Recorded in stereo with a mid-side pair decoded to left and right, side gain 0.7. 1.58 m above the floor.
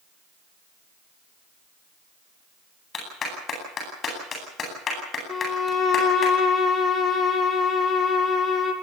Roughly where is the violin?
Ahead left.